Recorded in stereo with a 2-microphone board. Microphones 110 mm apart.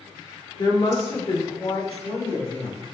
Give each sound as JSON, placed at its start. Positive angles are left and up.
{"t": 0.6, "sound": "a woman speaking", "side_deg": 45, "distance_m": 1.1}